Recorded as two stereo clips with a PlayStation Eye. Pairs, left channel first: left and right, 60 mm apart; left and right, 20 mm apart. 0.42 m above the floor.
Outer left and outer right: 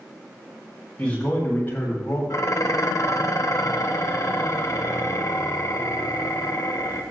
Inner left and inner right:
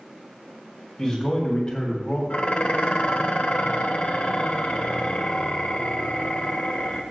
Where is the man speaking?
20° left (ahead or behind), 3.5 m; by 2.2 s 45° left (ahead or behind), 3 m.